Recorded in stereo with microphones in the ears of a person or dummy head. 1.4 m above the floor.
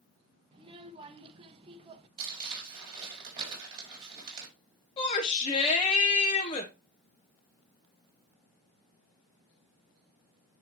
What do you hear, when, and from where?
0.5 s a child speaking: 30° right (ahead or behind), 1.1 m
2.2 s crumpling: 30° right (ahead or behind), 4.5 m
5.0 s a shout: 25° left (ahead or behind), 1.4 m